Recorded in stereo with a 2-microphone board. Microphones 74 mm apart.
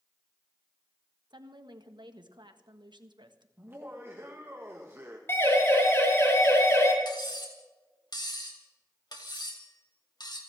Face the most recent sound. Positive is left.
turn(degrees=65)  # may be behind; listen again after turning